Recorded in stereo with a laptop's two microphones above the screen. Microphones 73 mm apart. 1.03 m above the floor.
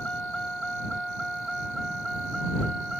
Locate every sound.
0.0 s a vehicle: 15° left (ahead or behind); by 3.0 s 5° right (ahead or behind)